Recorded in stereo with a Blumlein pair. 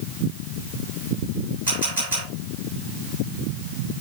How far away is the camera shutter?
About 5.5 m.